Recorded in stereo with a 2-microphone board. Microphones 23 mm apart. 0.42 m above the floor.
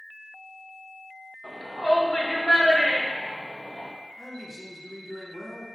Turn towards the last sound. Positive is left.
turn(degrees=-15)  # may be behind; listen again after turning